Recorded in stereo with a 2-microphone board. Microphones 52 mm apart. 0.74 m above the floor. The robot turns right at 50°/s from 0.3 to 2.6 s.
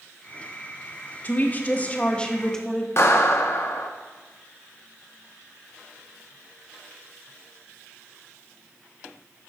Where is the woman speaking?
90° left, 0.9 m; by 2.9 s 160° left, 0.9 m.